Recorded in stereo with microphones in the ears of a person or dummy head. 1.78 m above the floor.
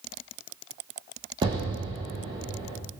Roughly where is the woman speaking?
I don't hear a woman speaking.